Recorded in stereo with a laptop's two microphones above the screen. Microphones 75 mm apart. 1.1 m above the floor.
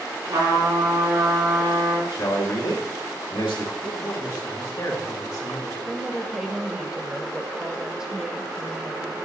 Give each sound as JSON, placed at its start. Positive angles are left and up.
{"t": 0.3, "sound": "a trumpet", "side_deg": -85, "distance_m": 2.5}
{"t": 2.1, "sound": "a man speaking", "side_deg": 85, "distance_m": 1.9}
{"t": 3.8, "sound": "a man speaking", "side_deg": 50, "distance_m": 1.6}
{"t": 5.9, "sound": "a woman speaking", "side_deg": -15, "distance_m": 0.8}